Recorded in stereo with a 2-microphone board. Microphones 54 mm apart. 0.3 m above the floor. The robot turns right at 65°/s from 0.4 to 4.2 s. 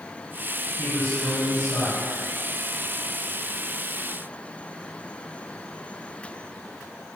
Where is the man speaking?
40° left, 3 m; by 2.1 s 125° left, 3 m.